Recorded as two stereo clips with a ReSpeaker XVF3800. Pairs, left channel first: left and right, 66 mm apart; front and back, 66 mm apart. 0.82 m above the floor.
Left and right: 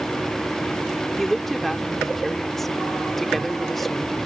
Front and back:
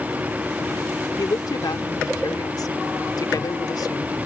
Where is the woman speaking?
5° left.